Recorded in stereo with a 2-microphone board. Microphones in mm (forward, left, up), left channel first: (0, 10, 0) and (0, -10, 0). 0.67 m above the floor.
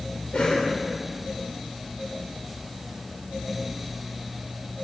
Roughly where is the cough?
Left.